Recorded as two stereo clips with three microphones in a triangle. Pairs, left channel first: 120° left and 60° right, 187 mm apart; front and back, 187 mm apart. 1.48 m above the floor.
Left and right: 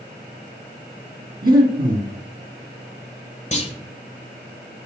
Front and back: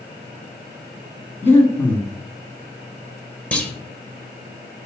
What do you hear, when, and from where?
1.4 s breathing: 75° right, 2.5 m
3.5 s a clunk: 80° left, 1.8 m